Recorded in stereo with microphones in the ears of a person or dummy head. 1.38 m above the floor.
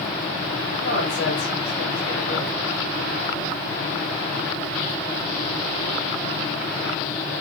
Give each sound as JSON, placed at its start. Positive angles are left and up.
{"t": 0.8, "sound": "a man speaking", "side_deg": 80, "distance_m": 6.0}